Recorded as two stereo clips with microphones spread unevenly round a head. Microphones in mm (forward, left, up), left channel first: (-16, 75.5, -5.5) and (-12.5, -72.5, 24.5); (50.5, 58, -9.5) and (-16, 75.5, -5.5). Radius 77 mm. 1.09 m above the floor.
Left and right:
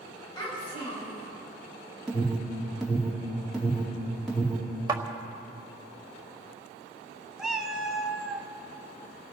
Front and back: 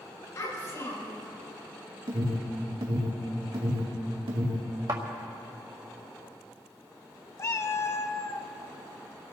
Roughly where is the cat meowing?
Ahead.